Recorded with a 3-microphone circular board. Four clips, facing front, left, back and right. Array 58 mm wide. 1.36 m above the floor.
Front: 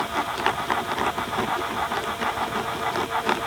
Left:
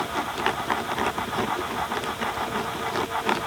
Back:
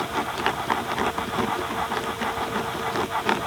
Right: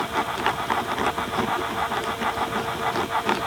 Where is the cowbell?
I don't hear a cowbell.